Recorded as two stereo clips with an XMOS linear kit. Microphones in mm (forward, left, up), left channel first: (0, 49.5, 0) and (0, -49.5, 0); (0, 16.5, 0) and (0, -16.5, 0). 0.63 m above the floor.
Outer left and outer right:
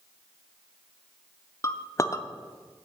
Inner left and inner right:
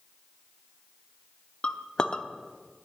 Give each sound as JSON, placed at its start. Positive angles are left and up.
{"t": 1.6, "sound": "a clink", "side_deg": 30, "distance_m": 0.6}